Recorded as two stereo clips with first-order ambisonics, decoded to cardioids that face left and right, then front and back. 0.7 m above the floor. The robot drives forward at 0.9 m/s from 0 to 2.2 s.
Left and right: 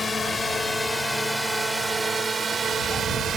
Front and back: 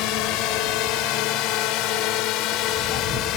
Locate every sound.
0.0 s a drone: 15° left; by 3.4 s 35° right